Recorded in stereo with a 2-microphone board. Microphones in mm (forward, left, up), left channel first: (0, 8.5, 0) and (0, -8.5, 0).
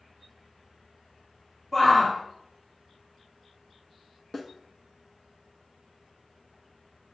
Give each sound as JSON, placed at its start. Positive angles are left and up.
{"t": 1.7, "sound": "a shout", "side_deg": 35, "distance_m": 2.5}
{"t": 4.3, "sound": "a snare drum", "side_deg": 15, "distance_m": 1.3}